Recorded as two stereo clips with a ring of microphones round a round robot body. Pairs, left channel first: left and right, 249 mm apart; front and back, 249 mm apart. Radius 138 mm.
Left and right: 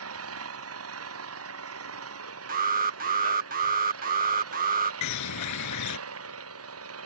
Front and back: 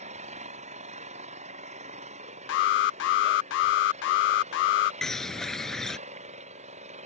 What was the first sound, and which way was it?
An engine running, 115° right.